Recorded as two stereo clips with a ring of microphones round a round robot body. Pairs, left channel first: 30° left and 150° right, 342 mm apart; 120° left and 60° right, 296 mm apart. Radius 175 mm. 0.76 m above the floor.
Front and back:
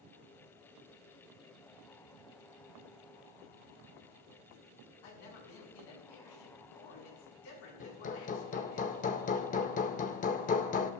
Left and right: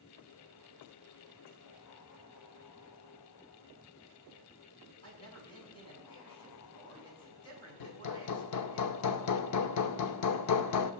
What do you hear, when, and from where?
5.0 s a man speaking: 45° left, 7 m
7.8 s hammering: 95° left, 0.6 m